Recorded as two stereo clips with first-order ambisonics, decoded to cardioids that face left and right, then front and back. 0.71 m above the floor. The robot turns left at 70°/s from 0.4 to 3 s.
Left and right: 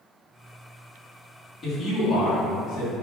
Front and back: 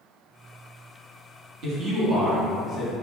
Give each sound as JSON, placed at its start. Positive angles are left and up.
{"t": 1.6, "sound": "a man speaking", "azimuth_deg": 160, "distance_m": 1.0}